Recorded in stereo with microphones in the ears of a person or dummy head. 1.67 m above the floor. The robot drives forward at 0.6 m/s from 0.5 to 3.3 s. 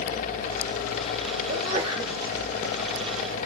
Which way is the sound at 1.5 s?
35° right (ahead or behind).